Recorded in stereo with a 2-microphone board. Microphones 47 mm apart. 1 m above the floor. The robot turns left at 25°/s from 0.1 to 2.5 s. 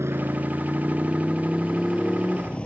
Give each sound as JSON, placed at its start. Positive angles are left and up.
{"t": 0.0, "sound": "a motorcycle", "side_deg": -65}